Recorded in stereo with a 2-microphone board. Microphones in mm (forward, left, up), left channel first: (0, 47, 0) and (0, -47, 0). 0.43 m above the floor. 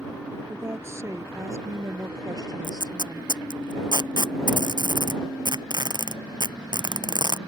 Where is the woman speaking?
30° right (ahead or behind); by 3.4 s 50° right (ahead or behind).